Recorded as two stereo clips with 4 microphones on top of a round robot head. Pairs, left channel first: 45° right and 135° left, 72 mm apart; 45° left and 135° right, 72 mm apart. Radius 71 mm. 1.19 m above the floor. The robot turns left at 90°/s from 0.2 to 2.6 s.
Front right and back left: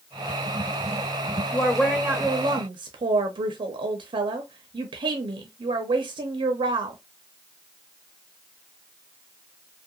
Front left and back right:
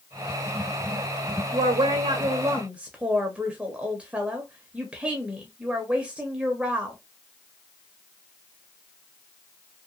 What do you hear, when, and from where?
1.5 s a woman speaking: 115° right, 0.5 m; by 7.0 s 150° left, 0.5 m